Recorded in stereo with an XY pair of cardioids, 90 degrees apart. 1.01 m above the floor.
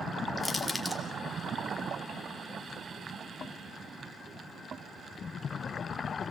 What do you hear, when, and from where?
0.4 s crushing: 15° left, 2.5 m